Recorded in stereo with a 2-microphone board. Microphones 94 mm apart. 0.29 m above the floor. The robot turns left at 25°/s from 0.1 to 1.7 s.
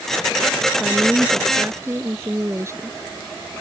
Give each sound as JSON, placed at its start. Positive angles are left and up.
{"t": 0.8, "sound": "a woman speaking", "side_deg": -10}